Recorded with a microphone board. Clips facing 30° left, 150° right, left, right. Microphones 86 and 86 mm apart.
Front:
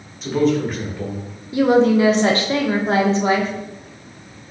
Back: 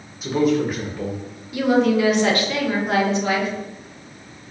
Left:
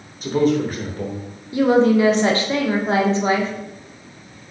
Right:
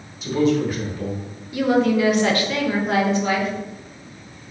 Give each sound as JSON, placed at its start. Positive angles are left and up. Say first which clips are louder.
{"t": 0.2, "sound": "a man speaking", "louder": "front 1 dB, left 1 dB", "azimuth_deg": 125, "distance_m": 1.3}
{"t": 1.5, "sound": "a woman speaking", "louder": "front 3 dB, left 3 dB", "azimuth_deg": 60, "distance_m": 0.8}